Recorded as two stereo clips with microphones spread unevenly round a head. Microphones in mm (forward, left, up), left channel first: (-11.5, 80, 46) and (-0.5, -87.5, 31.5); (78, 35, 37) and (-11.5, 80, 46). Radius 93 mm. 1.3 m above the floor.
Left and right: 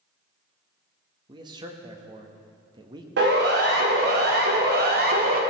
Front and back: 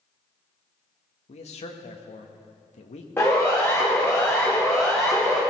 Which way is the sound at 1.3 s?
20° right.